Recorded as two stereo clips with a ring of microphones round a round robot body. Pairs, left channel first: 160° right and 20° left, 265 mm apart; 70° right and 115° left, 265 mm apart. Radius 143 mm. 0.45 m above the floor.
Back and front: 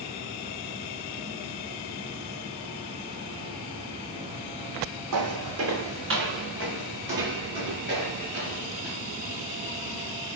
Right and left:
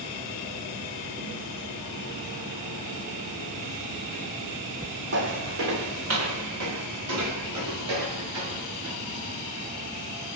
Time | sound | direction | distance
5.1 | footsteps | 60° left | 1.4 m